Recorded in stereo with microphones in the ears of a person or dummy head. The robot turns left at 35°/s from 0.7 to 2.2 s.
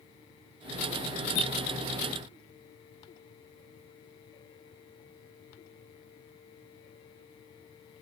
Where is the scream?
I don't hear a scream.